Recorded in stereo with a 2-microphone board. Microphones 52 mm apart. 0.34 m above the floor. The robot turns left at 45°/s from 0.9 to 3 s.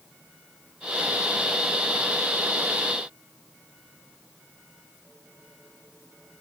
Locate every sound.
Only background noise.